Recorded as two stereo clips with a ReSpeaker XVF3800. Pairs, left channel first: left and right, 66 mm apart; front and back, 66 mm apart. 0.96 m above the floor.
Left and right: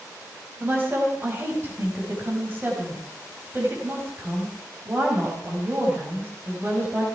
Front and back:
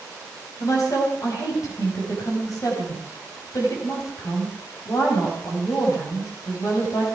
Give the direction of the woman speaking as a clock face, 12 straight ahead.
1 o'clock.